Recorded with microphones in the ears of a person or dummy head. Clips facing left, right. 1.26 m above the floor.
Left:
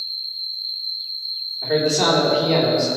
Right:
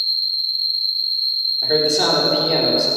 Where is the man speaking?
5° right (ahead or behind), 3.5 m.